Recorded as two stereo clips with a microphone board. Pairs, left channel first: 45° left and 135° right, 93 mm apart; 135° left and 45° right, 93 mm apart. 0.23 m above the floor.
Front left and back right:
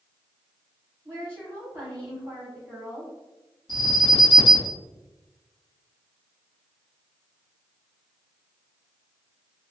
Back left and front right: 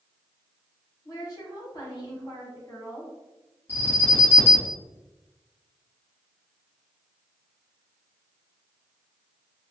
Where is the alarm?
165° right, 1.9 m.